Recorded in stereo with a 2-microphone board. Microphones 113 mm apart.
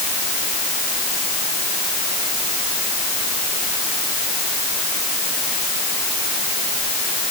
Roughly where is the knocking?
No knocking in this recording.